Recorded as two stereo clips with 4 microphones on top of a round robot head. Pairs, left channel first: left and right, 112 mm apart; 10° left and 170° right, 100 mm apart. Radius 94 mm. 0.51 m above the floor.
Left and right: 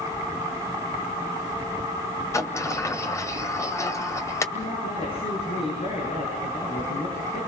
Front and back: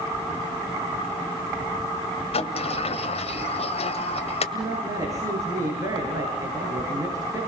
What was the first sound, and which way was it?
A sliding door, 25° left.